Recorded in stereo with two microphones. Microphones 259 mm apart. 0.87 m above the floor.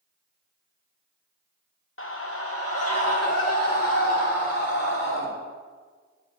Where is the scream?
55° left (ahead or behind), 0.8 m; by 5.3 s 75° left (ahead or behind), 3 m.